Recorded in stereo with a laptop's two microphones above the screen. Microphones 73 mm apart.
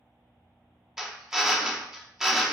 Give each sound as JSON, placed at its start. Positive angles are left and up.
{"t": 1.0, "sound": "a drill", "side_deg": -5, "distance_m": 0.7}